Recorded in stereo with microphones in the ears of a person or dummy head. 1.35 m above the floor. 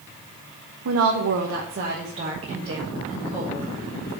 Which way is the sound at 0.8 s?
75° right (ahead or behind).